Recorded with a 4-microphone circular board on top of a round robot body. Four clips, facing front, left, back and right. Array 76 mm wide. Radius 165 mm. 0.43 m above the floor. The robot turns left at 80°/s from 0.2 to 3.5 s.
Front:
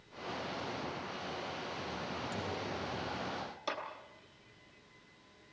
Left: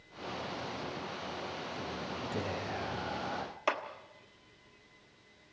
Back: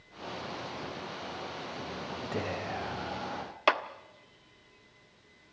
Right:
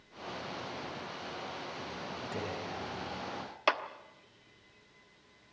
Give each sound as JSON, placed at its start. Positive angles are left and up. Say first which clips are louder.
{"t": 2.3, "sound": "whispering", "louder": "left 2 dB, back 5 dB", "azimuth_deg": -175, "distance_m": 4.0}
{"t": 3.7, "sound": "a clap", "louder": "right 3 dB, back 13 dB", "azimuth_deg": -160, "distance_m": 1.6}